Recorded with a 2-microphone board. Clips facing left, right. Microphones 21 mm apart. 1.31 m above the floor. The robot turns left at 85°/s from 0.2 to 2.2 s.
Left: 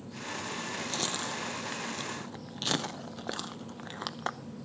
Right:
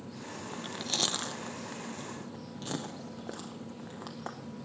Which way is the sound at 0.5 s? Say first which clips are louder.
Right 4 dB; 60° right (ahead or behind).